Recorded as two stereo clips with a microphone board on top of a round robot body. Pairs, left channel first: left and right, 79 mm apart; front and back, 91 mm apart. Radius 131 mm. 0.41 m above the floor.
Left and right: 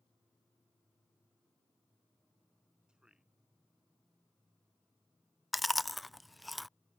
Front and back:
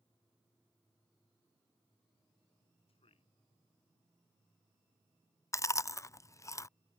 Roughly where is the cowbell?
No cowbell in this recording.